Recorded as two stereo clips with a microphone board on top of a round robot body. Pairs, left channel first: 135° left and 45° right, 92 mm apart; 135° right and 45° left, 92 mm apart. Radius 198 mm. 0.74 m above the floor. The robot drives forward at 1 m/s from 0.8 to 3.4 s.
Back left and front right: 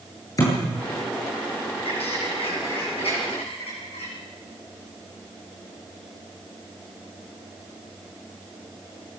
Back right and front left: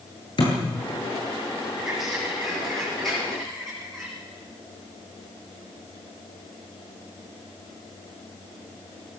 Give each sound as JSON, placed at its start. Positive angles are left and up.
{"t": 0.4, "sound": "a thud", "azimuth_deg": -170, "distance_m": 9.0}
{"t": 1.8, "sound": "a bird", "azimuth_deg": 130, "distance_m": 7.0}